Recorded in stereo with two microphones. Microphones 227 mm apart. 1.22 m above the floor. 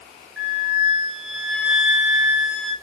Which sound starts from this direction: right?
A flute, at 0.4 s.